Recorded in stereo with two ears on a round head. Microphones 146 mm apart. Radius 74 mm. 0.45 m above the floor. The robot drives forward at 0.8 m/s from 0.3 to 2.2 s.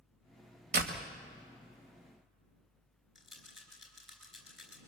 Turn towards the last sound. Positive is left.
turn(degrees=0)  # may be behind; listen again after turning